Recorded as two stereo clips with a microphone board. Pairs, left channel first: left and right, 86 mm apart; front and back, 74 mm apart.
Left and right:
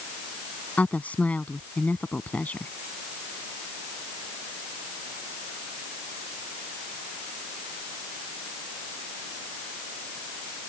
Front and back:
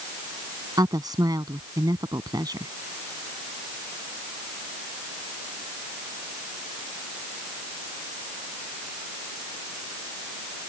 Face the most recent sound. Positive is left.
turn(degrees=160)